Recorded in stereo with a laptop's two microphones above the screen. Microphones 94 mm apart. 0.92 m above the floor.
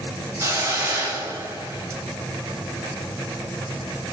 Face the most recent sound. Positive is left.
turn(degrees=-30)  # may be behind; listen again after turning